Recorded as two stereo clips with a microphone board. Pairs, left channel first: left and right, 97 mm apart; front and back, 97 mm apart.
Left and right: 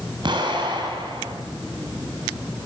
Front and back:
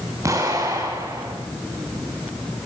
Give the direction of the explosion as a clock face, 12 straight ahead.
4 o'clock.